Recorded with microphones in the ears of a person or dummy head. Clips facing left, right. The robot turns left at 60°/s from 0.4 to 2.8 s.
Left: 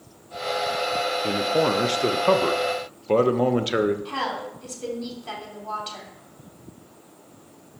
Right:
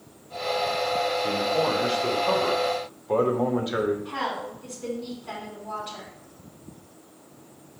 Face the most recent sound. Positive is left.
turn(degrees=65)  # may be behind; listen again after turning